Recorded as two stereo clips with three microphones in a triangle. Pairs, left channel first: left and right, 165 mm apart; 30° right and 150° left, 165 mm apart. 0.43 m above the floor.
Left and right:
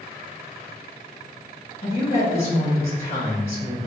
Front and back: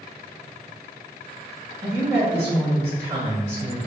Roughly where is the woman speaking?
Left.